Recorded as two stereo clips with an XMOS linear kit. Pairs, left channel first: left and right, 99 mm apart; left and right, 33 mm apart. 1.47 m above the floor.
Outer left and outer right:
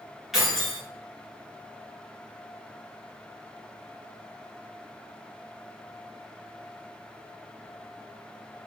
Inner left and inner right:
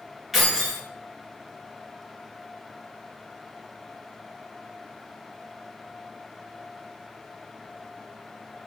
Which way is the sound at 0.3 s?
5° right (ahead or behind).